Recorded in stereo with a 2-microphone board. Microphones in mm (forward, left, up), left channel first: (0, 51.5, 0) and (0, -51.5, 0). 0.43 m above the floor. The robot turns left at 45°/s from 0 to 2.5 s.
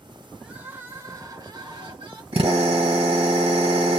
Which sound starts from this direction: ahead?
Crying, at 0.4 s.